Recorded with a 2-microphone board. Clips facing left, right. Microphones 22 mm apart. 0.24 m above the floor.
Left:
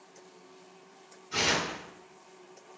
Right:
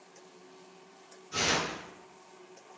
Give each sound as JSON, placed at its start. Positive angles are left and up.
{"t": 1.3, "sound": "tearing paper", "side_deg": 60, "distance_m": 2.5}